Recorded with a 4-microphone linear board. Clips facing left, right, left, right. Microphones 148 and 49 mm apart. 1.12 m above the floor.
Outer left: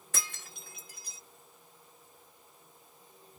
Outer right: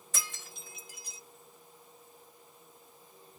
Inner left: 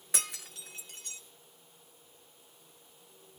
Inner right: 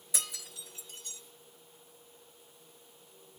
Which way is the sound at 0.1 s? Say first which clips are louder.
Outer left 1 dB, inner left 2 dB; 60° left (ahead or behind).